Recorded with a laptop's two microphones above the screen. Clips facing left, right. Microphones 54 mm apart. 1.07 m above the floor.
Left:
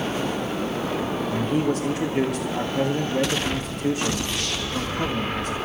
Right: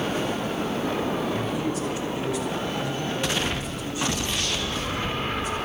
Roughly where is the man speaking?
Left.